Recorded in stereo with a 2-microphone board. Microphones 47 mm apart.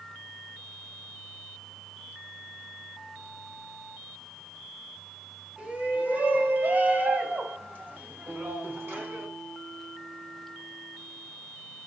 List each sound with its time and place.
5.6 s a shout: 25° right (ahead or behind), 1.6 m; by 9.3 s 45° right (ahead or behind), 2.5 m
8.3 s a guitar: 40° right (ahead or behind), 4 m